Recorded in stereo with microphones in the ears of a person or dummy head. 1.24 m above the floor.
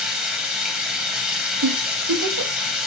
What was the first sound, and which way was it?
Running water, centre (ahead or behind).